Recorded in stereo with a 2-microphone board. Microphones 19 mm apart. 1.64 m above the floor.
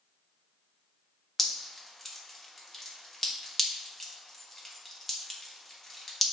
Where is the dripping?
15° left (ahead or behind), 1.3 m.